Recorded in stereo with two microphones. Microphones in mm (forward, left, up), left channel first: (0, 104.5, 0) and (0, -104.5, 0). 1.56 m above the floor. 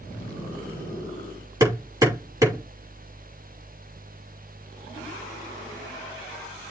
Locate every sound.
1.6 s hammering: 15° right (ahead or behind), 5 m